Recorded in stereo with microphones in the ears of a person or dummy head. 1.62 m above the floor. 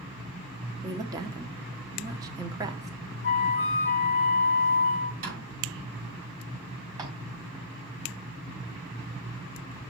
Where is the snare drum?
50° right (ahead or behind), 5.5 m.